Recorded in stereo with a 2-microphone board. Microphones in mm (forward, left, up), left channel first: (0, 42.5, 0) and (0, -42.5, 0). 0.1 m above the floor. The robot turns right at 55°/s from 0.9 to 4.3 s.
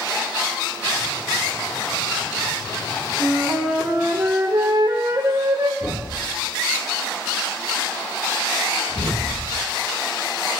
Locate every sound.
3.2 s a flute: 155° left, 3 m; by 5.7 s 145° right, 3 m
5.8 s a thud: 45° left (ahead or behind), 4.5 m